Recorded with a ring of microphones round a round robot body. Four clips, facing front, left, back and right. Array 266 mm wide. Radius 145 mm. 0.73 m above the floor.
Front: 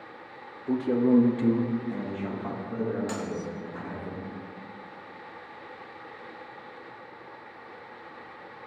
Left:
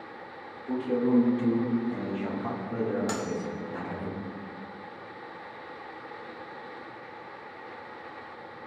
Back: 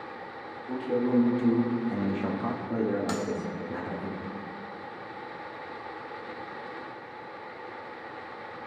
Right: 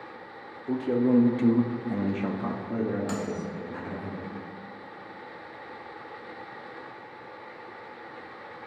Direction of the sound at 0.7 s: 30° right.